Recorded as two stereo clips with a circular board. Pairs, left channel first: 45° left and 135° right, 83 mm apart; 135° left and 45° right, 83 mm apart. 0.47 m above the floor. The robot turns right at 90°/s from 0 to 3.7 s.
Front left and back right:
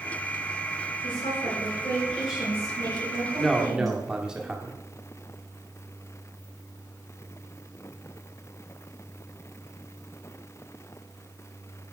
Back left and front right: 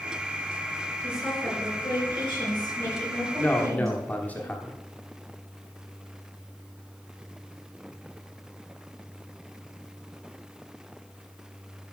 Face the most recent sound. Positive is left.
turn(degrees=160)